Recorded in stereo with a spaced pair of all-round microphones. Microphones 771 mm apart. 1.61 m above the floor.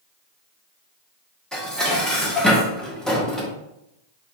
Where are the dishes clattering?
Centre (ahead or behind), 0.7 m.